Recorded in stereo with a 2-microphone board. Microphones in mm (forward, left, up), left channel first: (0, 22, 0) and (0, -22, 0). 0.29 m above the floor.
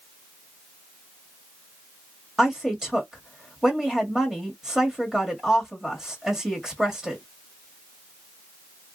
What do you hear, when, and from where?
2.4 s a woman speaking: 15° right (ahead or behind), 1.5 m